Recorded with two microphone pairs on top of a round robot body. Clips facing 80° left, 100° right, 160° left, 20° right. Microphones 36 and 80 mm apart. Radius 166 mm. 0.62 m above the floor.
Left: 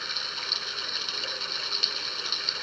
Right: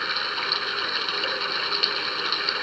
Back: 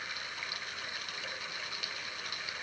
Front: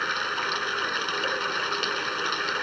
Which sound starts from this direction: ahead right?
Running water, at 0.0 s.